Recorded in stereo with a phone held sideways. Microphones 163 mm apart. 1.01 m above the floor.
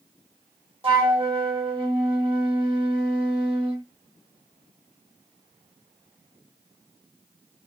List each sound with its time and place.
0.8 s a flute: 35° right (ahead or behind), 1.1 m